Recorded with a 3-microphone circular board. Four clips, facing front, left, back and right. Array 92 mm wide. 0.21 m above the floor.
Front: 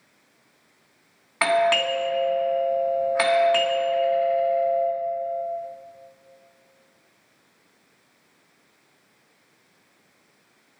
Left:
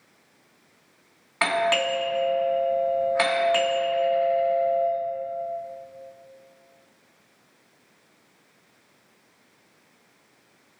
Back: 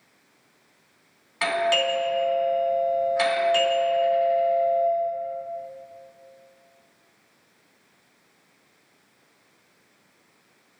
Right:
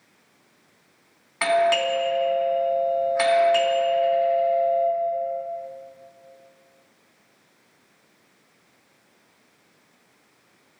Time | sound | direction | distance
1.4 | a doorbell | 25° left | 2 m